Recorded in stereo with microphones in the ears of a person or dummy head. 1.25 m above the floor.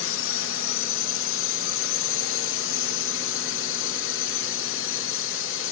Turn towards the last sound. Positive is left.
turn(degrees=60)  # may be behind; listen again after turning